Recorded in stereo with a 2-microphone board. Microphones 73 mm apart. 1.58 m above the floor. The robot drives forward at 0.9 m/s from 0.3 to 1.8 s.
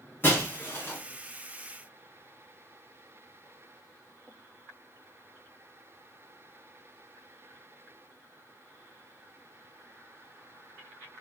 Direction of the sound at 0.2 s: 30° left (ahead or behind).